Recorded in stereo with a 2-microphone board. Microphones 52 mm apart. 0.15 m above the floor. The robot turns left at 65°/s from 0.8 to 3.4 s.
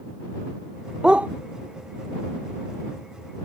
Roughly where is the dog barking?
Centre.